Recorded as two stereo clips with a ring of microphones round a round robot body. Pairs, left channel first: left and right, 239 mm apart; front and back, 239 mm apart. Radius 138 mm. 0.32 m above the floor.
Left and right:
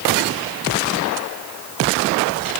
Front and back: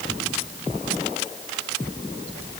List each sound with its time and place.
Only background noise.